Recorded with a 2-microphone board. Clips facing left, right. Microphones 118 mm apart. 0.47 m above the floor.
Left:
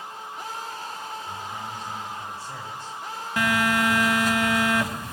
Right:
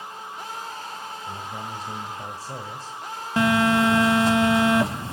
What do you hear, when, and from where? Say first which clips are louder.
1.3 s a man speaking: right 1 dB; 40° right (ahead or behind), 1.7 m
3.4 s a phone buzzing: right 4 dB; 30° right (ahead or behind), 0.8 m